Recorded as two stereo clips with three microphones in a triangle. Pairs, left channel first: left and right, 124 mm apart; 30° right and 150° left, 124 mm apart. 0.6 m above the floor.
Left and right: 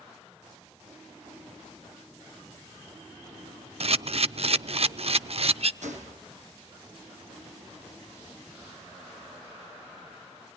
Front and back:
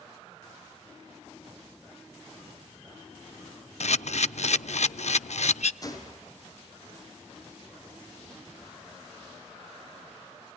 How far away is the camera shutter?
About 0.5 m.